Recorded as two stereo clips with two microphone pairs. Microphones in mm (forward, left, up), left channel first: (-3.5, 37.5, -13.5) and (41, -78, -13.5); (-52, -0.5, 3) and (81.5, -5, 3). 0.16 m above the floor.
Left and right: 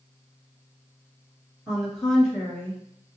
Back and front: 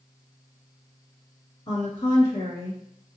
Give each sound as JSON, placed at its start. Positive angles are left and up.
{"t": 1.7, "sound": "a woman speaking", "azimuth_deg": -145, "distance_m": 1.9}